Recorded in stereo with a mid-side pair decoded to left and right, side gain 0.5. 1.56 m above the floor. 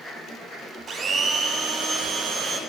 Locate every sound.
0.9 s a blender: 50° right, 0.7 m